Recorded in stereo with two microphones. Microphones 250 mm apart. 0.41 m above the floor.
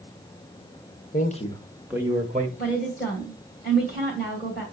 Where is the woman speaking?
35° left (ahead or behind), 2 m.